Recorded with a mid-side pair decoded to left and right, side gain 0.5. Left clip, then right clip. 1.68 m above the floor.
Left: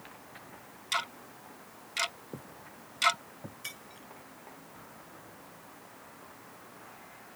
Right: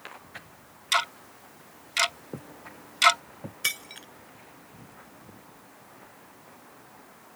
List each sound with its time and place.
0.9 s ticking: 45° right
2.3 s footsteps: 30° right
3.6 s breaking glass: 70° right